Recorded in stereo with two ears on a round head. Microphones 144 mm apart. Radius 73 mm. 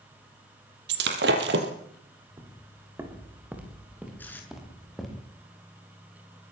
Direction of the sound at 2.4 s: 20° right (ahead or behind).